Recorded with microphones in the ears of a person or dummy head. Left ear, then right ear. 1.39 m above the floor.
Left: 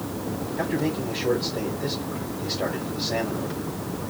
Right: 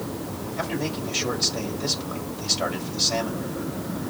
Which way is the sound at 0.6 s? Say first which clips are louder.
Left 2 dB; 55° right (ahead or behind).